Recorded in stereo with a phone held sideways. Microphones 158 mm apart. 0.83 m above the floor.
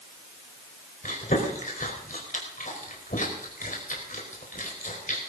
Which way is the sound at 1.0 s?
55° left (ahead or behind).